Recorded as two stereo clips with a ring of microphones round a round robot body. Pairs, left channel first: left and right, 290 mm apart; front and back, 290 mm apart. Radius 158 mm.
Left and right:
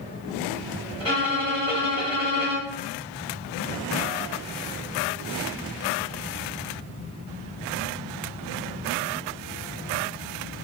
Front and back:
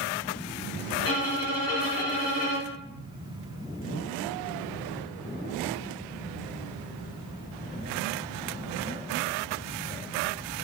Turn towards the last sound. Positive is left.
turn(degrees=-20)